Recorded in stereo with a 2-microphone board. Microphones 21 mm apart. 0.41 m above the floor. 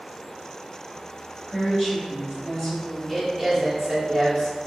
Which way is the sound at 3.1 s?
10° left (ahead or behind).